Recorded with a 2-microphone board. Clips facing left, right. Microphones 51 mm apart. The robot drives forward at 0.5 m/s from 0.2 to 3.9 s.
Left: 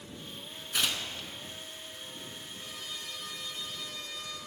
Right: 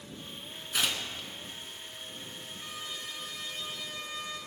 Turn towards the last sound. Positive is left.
turn(degrees=-25)  # may be behind; listen again after turning